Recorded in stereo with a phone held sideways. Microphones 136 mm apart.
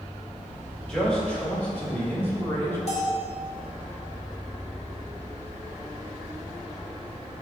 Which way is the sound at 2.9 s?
55° left (ahead or behind).